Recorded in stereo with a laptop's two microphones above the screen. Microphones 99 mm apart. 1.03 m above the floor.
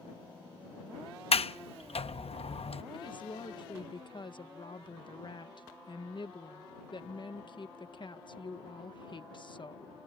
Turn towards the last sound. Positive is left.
turn(degrees=50)  # may be behind; listen again after turning